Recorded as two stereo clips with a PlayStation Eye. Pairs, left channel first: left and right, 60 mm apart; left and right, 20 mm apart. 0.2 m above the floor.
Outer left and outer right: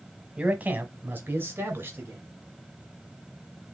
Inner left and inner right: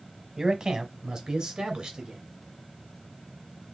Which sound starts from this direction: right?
A man speaking, at 0.4 s.